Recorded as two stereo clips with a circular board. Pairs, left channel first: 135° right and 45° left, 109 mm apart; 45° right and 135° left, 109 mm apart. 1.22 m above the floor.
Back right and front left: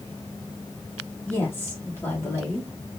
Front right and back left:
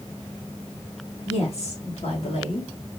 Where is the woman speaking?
60° right, 3.5 m; by 2.7 s 70° right, 3 m.